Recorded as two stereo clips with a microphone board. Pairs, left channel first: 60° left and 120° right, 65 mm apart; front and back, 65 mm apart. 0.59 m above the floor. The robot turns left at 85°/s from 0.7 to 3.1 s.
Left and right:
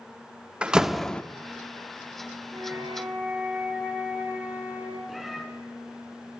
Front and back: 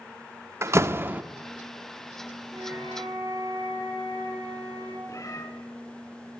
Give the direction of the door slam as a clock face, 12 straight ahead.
6 o'clock.